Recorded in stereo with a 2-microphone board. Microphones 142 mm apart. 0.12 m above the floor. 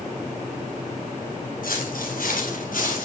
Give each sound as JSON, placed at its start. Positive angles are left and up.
{"t": 1.6, "sound": "footsteps", "side_deg": 80, "distance_m": 3.5}